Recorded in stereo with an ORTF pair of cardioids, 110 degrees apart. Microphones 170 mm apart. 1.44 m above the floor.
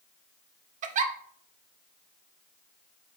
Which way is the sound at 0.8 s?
45° right.